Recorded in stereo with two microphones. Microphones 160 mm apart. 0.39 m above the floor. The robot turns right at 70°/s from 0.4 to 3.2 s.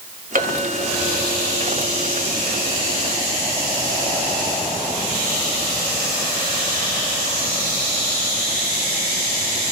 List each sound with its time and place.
0.3 s a clink: 60° right, 2.5 m; by 3.8 s 135° left, 2.5 m